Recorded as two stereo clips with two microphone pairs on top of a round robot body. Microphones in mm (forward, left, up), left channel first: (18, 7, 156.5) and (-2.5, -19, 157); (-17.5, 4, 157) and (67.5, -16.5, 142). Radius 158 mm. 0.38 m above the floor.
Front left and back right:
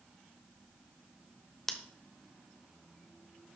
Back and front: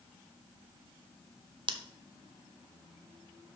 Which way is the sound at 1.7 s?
35° right.